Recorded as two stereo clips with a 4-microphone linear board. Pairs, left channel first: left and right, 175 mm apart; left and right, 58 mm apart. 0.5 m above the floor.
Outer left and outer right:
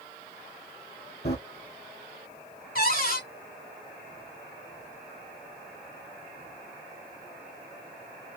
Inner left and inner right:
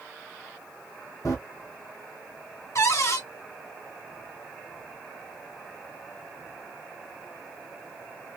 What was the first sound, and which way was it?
Running footsteps, 70° left (ahead or behind).